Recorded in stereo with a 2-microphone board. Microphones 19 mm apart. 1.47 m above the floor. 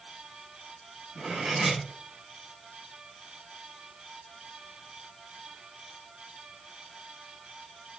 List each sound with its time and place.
1.1 s cutlery clinking: 40° right (ahead or behind), 5.5 m